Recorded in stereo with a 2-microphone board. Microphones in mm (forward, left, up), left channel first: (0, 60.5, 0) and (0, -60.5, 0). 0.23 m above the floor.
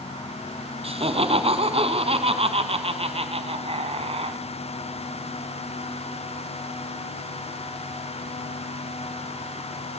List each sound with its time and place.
0.8 s laughter: 55° right (ahead or behind), 1.9 m